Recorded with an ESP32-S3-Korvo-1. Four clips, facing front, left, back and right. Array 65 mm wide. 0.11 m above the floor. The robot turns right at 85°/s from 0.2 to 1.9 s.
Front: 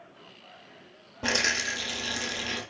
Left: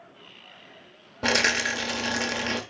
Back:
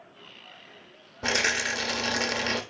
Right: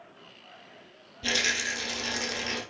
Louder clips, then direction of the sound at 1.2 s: Left 6 dB, back 1 dB; 85° left.